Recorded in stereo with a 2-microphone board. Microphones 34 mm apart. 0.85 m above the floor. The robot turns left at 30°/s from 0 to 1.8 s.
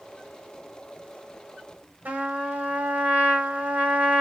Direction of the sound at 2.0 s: 65° right (ahead or behind).